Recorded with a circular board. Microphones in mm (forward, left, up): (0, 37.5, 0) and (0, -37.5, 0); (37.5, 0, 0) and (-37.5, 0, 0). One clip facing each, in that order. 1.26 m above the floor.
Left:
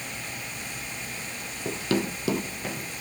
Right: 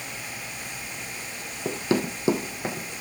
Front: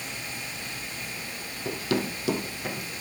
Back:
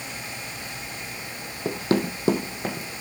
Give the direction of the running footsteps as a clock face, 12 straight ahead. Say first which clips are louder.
Right 2 dB, back 4 dB; 5 o'clock.